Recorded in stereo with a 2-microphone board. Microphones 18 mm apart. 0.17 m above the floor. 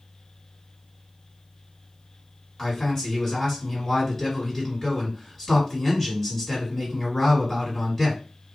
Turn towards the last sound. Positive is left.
turn(degrees=20)  # may be behind; listen again after turning